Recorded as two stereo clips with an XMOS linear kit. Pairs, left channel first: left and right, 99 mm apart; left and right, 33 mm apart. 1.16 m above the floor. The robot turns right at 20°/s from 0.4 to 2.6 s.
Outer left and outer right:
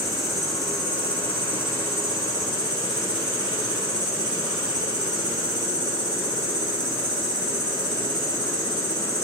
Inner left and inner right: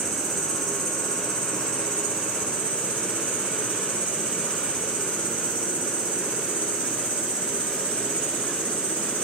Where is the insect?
Straight ahead, 1.9 m; by 9.3 s 45° left, 1.9 m.